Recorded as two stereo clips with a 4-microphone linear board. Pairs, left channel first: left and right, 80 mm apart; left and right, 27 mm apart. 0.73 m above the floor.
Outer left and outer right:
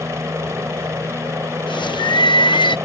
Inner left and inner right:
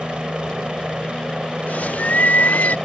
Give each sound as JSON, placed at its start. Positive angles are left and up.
{"t": 0.0, "sound": "a helicopter", "side_deg": -35}
{"t": 1.7, "sound": "a bird", "side_deg": 75}